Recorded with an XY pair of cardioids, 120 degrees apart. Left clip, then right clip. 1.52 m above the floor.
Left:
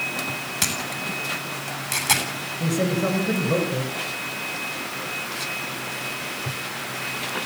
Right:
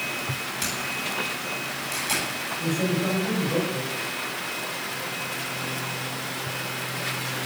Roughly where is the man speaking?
Ahead left.